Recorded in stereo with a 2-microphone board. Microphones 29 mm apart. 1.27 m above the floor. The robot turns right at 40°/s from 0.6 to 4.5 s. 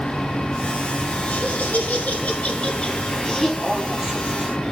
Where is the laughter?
75° left, 3 m; by 4.5 s 155° right, 3 m.